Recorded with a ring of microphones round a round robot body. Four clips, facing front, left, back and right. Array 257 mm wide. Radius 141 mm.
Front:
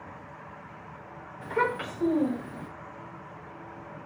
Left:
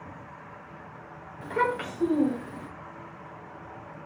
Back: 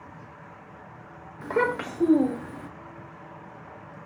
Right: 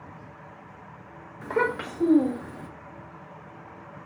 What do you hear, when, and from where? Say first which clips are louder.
1.4 s a child speaking: right 1 dB, back 3 dB; 145° right, 1.5 m; by 2.7 s 165° right, 2.5 m